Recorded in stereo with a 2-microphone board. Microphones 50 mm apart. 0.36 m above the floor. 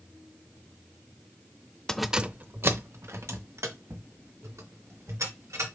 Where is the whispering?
No whispering in this recording.